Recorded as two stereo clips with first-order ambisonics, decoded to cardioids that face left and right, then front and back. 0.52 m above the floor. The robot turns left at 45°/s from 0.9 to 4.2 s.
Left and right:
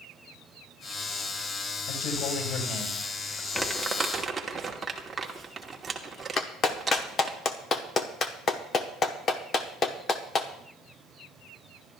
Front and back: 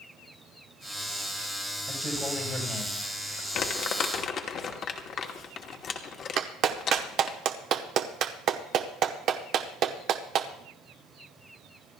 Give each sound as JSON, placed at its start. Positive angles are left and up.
{"t": 1.9, "sound": "a man speaking", "azimuth_deg": 100, "distance_m": 2.5}
{"t": 3.5, "sound": "crumpling", "azimuth_deg": 5, "distance_m": 1.1}
{"t": 6.4, "sound": "a clap", "azimuth_deg": 145, "distance_m": 0.8}